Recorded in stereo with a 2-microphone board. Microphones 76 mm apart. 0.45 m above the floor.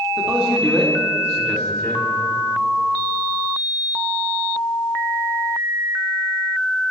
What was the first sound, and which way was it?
A man speaking, 15° right (ahead or behind).